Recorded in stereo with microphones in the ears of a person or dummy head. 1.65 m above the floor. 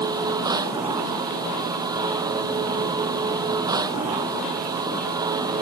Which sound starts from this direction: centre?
A machine running, at 0.0 s.